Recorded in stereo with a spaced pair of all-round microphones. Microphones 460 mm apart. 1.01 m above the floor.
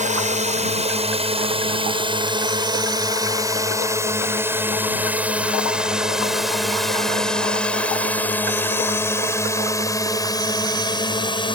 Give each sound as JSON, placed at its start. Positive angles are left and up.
{"t": 0.0, "sound": "a drone", "side_deg": -15}